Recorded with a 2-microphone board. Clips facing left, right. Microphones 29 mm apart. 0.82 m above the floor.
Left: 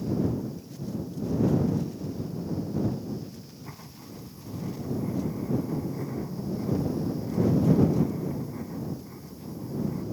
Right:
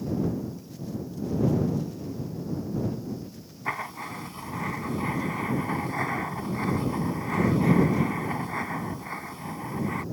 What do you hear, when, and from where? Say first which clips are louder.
3.6 s writing: right 12 dB; 85° right